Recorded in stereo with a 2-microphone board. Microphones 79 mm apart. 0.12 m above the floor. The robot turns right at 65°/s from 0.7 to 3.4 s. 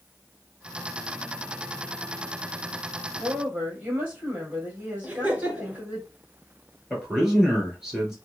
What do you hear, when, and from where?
3.2 s a woman speaking: 30° right (ahead or behind), 3 m; by 6.0 s 20° right (ahead or behind), 3 m
5.0 s laughter: 15° right (ahead or behind), 1.5 m
6.9 s a man speaking: 5° right (ahead or behind), 2 m